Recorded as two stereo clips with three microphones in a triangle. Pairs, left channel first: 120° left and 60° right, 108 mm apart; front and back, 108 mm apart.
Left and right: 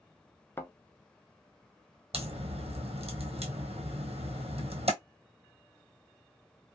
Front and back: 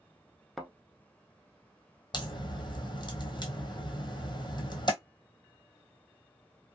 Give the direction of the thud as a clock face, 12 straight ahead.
9 o'clock.